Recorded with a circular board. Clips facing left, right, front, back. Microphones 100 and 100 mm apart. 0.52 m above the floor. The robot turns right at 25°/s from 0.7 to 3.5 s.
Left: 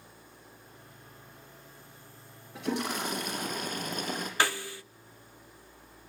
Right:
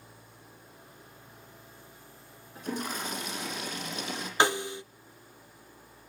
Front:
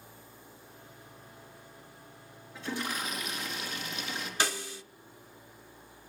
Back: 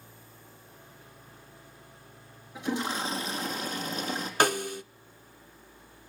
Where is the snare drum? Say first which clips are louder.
Right 5 dB, back 9 dB; 155° right, 0.6 m.